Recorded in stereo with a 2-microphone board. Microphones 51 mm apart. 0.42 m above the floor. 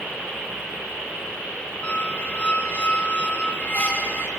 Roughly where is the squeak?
Left.